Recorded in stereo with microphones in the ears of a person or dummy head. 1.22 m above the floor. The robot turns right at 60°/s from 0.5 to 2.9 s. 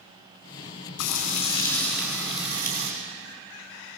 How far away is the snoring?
I don't hear snoring.